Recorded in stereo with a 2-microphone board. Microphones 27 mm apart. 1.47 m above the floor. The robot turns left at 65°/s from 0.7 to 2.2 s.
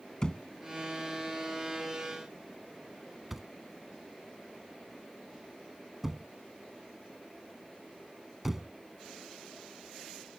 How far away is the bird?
No bird in this recording.